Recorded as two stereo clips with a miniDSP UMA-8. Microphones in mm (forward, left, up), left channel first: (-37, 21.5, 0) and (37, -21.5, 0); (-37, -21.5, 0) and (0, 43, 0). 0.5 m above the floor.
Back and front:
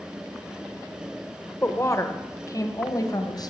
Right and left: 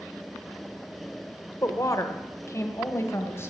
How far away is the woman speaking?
About 1.4 m.